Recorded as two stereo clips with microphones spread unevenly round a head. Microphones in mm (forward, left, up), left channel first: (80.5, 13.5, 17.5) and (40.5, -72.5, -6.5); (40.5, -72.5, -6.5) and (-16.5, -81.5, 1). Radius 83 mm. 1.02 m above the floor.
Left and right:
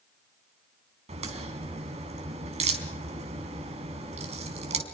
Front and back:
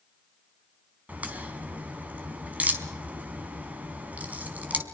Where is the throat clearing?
I don't hear throat clearing.